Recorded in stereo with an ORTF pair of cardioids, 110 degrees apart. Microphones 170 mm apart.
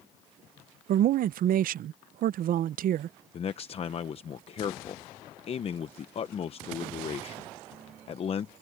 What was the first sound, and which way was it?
A man speaking, 55° right.